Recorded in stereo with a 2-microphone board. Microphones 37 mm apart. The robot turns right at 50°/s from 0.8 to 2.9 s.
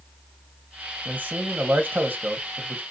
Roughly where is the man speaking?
Behind right.